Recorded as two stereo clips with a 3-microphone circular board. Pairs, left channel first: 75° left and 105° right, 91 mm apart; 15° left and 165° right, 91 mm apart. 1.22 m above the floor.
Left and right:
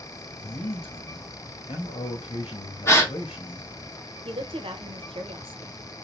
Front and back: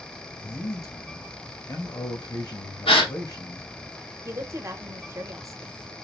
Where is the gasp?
15° left, 1.0 m.